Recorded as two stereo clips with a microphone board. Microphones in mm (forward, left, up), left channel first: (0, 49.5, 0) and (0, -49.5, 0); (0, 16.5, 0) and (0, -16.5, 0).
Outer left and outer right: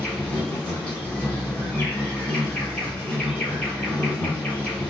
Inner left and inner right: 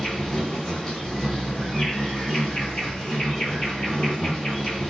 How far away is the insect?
About 1.5 m.